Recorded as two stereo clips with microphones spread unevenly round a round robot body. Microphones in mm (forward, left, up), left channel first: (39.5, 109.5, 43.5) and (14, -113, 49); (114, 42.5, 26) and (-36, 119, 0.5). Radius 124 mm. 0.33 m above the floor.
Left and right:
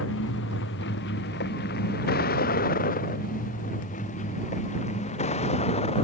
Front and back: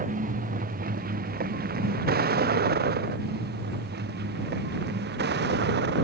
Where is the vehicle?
120° left; by 6.0 s 150° left.